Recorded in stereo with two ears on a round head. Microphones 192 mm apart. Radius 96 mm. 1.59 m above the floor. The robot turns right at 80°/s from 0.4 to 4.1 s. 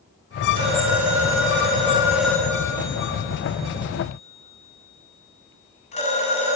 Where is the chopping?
I don't hear chopping.